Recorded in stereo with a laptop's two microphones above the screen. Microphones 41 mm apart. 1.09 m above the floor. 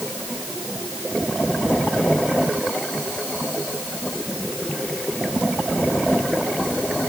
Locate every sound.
Only background noise.